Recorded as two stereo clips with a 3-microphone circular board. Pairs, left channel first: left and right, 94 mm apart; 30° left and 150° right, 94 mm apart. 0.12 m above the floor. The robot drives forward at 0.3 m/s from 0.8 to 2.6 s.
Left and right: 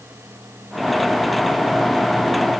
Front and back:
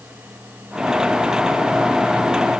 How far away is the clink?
I don't hear a clink.